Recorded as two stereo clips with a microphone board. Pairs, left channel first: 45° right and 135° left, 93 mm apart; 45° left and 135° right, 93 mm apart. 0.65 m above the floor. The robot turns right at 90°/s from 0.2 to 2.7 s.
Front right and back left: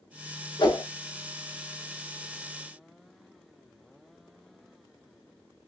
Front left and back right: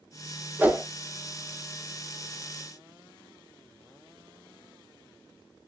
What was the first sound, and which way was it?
A whoosh, 70° right.